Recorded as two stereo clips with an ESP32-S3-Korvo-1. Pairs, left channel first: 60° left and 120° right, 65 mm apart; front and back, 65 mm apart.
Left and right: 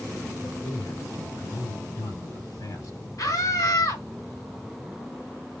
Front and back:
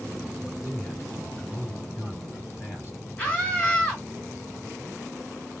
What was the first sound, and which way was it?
A man speaking, 55° left.